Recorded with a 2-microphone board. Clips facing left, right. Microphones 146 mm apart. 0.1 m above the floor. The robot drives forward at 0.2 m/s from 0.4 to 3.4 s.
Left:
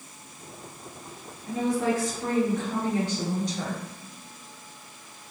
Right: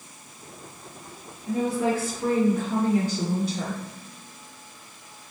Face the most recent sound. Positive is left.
turn(degrees=-5)  # may be behind; listen again after turning